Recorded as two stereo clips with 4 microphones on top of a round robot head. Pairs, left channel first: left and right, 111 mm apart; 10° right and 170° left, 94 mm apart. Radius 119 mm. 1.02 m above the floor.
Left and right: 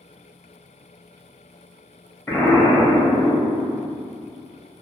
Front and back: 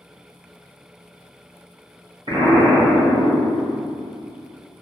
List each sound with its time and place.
2.3 s an explosion: 155° left, 1.1 m